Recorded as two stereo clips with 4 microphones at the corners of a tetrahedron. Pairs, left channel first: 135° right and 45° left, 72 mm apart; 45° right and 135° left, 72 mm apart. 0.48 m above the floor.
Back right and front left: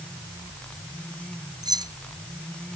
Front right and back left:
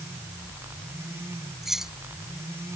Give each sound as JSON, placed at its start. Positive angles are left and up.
{"t": 1.6, "sound": "keys jangling", "azimuth_deg": 50}